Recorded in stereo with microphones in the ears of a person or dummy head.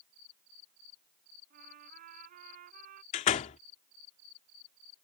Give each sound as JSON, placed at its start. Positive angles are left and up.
{"t": 1.5, "sound": "a trumpet", "side_deg": -55}
{"t": 3.1, "sound": "a door slam", "side_deg": 35}